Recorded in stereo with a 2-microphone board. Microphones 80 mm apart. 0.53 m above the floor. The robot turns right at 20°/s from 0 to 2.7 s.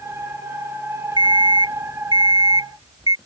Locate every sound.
1.2 s an alarm clock: 95° right; by 3.2 s 65° right